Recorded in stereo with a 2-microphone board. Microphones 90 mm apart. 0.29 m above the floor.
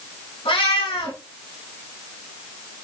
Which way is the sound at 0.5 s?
80° left.